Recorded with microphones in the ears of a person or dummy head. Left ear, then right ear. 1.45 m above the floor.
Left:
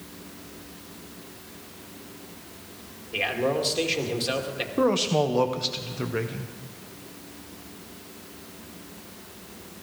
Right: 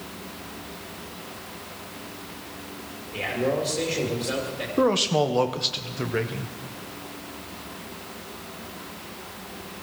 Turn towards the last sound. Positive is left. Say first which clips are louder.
# right 2 dB
turn(degrees=-10)  # may be behind; listen again after turning